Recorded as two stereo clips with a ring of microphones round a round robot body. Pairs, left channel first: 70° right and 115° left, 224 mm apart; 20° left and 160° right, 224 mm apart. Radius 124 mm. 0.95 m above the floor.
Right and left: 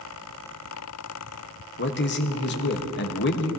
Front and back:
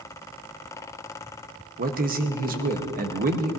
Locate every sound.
1.8 s a man speaking: 105° right, 1.1 m